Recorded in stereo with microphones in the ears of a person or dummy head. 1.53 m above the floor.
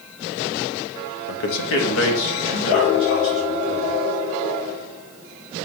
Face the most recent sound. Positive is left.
turn(degrees=80)